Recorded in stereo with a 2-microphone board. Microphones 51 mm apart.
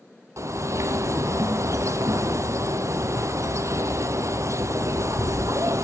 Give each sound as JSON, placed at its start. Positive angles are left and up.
{"t": 0.4, "sound": "a bird", "side_deg": -75, "distance_m": 0.7}